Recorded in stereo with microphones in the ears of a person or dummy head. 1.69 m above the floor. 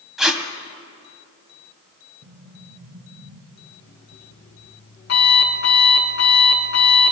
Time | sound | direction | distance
0.2 | tape being pulled | centre (ahead or behind) | 1.6 m
2.2 | an explosion | 60° right (ahead or behind) | 1.9 m
3.5 | an alarm clock | 60° left (ahead or behind) | 7.5 m